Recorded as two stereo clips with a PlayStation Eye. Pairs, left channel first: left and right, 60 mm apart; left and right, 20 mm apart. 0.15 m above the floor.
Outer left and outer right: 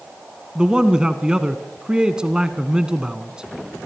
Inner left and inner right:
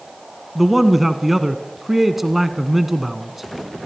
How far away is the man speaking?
About 1.1 m.